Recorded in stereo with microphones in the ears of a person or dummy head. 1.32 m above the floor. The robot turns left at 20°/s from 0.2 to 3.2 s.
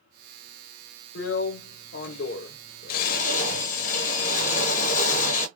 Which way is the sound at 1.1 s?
95° left.